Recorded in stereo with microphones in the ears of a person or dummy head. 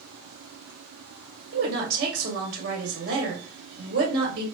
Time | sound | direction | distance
1.5 | a woman speaking | 50° right (ahead or behind) | 1.5 m